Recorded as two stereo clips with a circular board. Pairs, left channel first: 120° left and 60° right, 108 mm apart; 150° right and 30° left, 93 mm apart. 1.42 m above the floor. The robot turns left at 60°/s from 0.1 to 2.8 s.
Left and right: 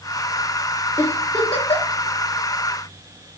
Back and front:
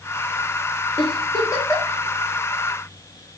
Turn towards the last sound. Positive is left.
turn(degrees=80)